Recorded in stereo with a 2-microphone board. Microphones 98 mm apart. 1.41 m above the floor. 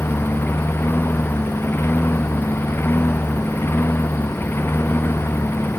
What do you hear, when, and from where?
0.0 s a lawn mower: 20° left (ahead or behind)